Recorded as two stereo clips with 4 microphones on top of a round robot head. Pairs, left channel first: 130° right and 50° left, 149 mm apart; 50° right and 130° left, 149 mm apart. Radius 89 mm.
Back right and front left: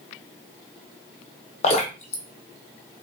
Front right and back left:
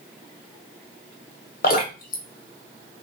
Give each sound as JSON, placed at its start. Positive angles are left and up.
{"t": 1.6, "sound": "dripping", "azimuth_deg": -80, "distance_m": 1.2}